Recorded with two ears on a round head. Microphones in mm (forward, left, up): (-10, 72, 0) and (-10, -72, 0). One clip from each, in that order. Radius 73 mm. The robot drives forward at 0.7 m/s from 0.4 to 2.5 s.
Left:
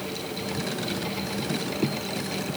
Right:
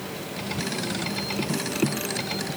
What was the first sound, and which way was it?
Only background noise.